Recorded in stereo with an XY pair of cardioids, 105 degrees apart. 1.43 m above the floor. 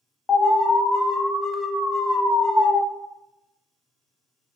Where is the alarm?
35° left, 0.7 m.